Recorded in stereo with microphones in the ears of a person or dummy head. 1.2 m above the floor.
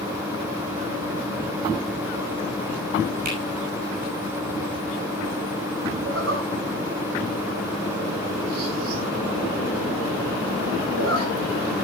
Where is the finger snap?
50° right (ahead or behind), 5.5 m.